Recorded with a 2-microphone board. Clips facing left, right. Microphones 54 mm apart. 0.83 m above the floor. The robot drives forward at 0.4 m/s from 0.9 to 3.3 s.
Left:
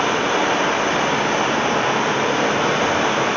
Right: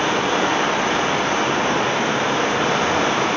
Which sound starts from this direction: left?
Running water, at 0.0 s.